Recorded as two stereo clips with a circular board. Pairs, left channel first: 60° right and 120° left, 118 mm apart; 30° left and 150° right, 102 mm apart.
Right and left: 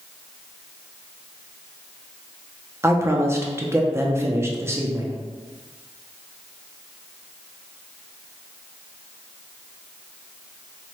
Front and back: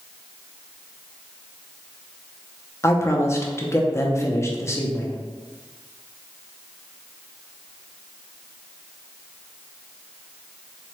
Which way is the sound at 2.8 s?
70° left.